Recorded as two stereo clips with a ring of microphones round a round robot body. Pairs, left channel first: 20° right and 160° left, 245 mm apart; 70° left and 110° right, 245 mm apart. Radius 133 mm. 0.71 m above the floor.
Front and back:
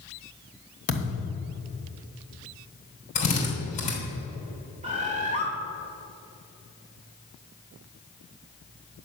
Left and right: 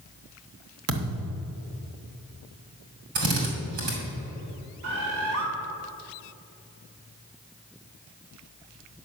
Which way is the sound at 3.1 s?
85° right.